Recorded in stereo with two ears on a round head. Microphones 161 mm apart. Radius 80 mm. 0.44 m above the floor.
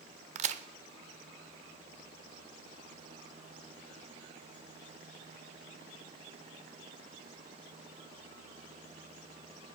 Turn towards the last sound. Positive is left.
turn(degrees=-40)  # may be behind; listen again after turning